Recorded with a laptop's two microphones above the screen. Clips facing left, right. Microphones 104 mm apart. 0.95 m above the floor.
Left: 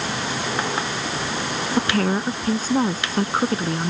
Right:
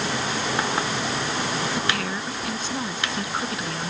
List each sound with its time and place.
1.8 s a woman speaking: 45° left (ahead or behind); by 3.9 s 35° left (ahead or behind)